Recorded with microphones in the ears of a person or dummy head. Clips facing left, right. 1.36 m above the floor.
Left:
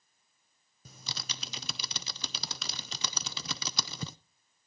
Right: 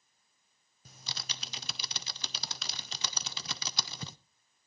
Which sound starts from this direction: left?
Typing on a keyboard, at 0.8 s.